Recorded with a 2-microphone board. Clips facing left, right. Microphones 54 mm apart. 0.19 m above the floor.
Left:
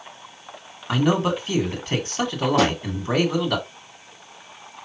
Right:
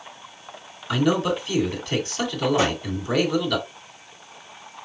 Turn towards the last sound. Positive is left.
turn(degrees=75)  # may be behind; listen again after turning